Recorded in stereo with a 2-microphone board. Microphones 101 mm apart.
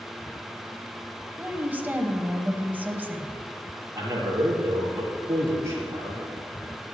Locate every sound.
1.4 s a woman speaking: 15° right (ahead or behind), 1.1 m
4.0 s a man speaking: 35° right (ahead or behind), 4.5 m